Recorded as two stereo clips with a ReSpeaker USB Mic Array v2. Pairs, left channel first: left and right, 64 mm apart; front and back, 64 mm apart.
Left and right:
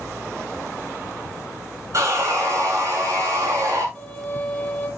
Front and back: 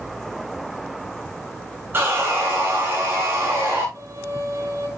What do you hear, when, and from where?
1.9 s sawing: 125° right, 6.5 m
4.0 s a violin: 160° left, 2.5 m